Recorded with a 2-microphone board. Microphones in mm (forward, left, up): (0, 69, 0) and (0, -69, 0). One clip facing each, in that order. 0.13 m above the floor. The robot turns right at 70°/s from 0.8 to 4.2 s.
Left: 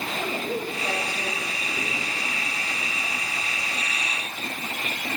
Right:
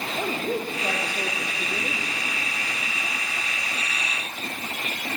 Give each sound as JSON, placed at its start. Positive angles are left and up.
{"t": 0.2, "sound": "a woman speaking", "azimuth_deg": -130, "distance_m": 6.5}